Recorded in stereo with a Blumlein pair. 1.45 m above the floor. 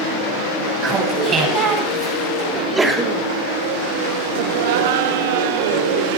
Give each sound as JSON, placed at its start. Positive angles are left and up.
{"t": 0.8, "sound": "laughter", "azimuth_deg": -20, "distance_m": 4.5}
{"t": 2.5, "sound": "a sneeze", "azimuth_deg": -10, "distance_m": 1.8}
{"t": 4.3, "sound": "laughter", "azimuth_deg": -50, "distance_m": 0.8}